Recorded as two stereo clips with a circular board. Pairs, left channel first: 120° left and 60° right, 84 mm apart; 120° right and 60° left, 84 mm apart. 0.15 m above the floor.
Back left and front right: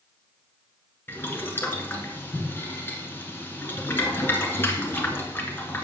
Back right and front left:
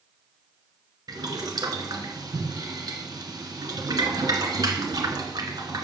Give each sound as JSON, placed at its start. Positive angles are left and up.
{"t": 1.1, "sound": "boiling", "azimuth_deg": 65, "distance_m": 1.6}